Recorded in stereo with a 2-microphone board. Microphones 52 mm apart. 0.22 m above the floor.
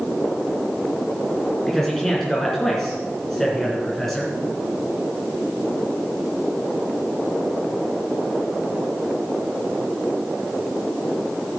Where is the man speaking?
5° left (ahead or behind), 2.5 m.